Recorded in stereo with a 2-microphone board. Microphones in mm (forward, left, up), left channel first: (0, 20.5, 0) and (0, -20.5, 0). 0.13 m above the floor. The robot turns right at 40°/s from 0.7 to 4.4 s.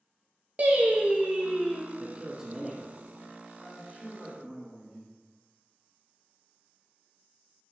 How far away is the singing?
About 0.8 m.